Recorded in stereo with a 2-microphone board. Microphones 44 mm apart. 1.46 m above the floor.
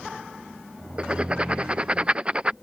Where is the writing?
25° right (ahead or behind).